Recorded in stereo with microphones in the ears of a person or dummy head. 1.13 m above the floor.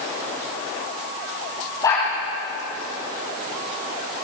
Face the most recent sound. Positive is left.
turn(degrees=15)  # may be behind; listen again after turning